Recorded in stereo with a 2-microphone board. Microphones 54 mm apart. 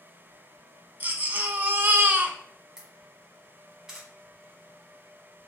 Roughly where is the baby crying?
Right.